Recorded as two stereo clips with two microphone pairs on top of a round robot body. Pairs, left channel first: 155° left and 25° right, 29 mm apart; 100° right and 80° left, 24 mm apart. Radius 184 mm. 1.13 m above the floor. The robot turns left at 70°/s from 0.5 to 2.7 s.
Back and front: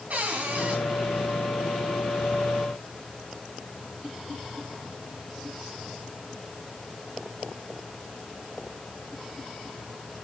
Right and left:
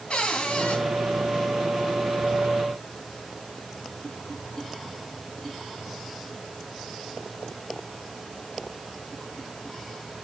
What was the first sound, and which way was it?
A cupboard door, 60° right.